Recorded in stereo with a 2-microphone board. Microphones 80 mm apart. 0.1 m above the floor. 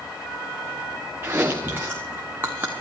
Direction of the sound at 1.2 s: 25° right (ahead or behind).